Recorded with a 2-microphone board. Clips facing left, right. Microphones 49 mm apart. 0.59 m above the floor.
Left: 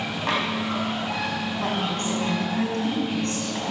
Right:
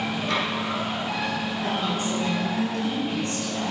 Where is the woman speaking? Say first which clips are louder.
Left 1 dB; 50° left (ahead or behind), 5 m.